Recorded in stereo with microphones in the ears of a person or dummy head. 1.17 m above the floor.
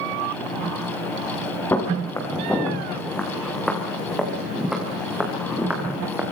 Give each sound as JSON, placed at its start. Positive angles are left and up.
{"t": 1.7, "sound": "footsteps", "side_deg": 10, "distance_m": 6.5}